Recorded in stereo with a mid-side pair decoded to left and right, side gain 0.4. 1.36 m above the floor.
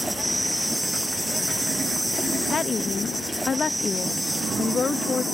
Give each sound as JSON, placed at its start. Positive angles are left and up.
{"t": 0.0, "sound": "an insect", "azimuth_deg": -5}
{"t": 2.5, "sound": "a woman speaking", "azimuth_deg": 40}